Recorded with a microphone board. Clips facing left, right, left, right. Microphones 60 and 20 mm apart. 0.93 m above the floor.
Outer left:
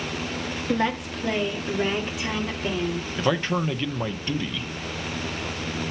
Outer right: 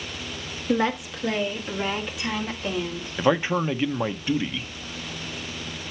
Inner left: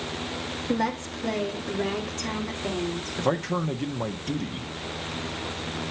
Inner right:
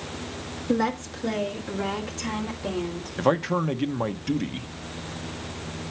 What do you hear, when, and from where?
0.7 s a woman speaking: 5° right (ahead or behind), 1.6 m; by 3.1 s centre (ahead or behind), 3 m
3.2 s a man speaking: 15° right (ahead or behind), 0.6 m